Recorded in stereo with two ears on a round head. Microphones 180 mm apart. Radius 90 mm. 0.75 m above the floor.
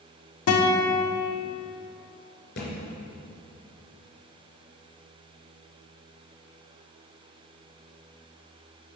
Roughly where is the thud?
Left.